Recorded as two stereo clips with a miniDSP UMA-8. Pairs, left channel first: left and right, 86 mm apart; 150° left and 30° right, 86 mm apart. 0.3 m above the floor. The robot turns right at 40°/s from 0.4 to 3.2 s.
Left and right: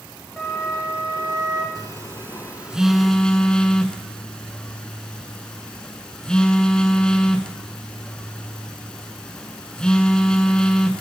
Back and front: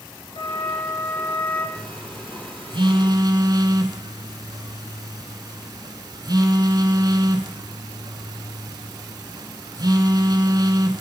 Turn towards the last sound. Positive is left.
turn(degrees=10)